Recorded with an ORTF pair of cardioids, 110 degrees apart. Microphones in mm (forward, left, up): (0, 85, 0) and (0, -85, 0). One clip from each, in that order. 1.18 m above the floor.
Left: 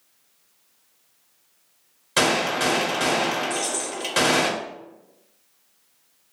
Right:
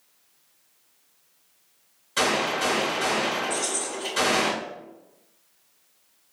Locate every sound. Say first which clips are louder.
2.2 s a gunshot: left 3 dB; 50° left, 0.9 m
3.5 s keys jangling: left 1 dB; 10° left, 1.2 m